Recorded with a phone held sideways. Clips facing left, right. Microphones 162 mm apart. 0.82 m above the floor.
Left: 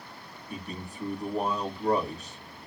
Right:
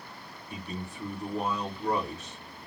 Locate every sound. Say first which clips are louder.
0.5 s a man speaking: even; 35° left (ahead or behind), 1.7 m